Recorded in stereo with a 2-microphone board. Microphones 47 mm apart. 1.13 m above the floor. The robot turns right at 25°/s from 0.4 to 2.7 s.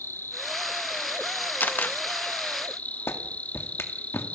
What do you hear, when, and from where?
0.0 s an insect: 80° left, 1.0 m; by 4.3 s 135° left, 1.0 m
1.6 s a camera shutter: 45° left (ahead or behind), 0.8 m; by 2.0 s 35° left (ahead or behind), 0.8 m
3.1 s a clap: 60° left (ahead or behind), 2 m